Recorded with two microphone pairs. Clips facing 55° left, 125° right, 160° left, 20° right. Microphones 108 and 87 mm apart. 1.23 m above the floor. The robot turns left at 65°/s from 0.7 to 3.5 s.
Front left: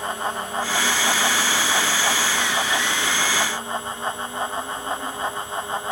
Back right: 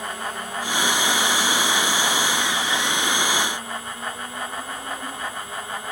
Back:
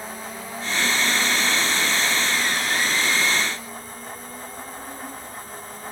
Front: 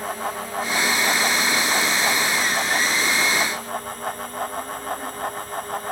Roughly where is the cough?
No cough in this recording.